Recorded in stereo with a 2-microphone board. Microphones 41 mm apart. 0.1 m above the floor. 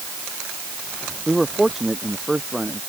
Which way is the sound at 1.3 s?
Centre (ahead or behind).